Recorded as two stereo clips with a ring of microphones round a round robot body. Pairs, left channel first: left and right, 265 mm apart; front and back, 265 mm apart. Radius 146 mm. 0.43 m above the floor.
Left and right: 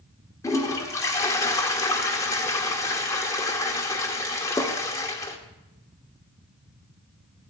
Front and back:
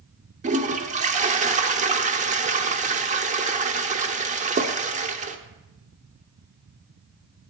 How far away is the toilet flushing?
About 0.9 m.